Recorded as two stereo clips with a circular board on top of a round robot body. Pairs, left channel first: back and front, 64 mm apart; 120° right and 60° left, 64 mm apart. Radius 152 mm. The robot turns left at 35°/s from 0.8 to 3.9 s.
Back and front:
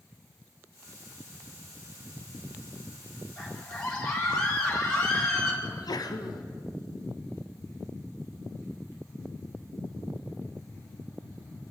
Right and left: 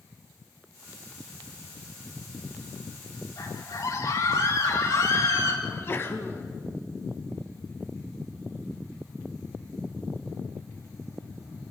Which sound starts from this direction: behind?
A sneeze, at 5.6 s.